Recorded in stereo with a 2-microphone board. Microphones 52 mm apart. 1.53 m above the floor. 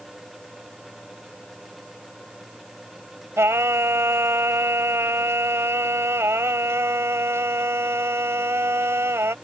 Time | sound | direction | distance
3.4 | singing | 65° right (ahead or behind) | ?